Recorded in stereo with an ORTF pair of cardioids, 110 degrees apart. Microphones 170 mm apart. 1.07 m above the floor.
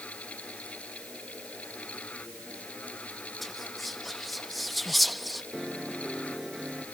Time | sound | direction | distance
0.0 | a fan | 5° left | ?
3.4 | whispering | straight ahead | ?
5.5 | a piano | straight ahead | ?